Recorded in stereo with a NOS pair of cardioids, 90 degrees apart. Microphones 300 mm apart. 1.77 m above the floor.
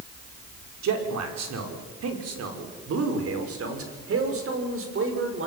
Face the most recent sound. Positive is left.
turn(degrees=-40)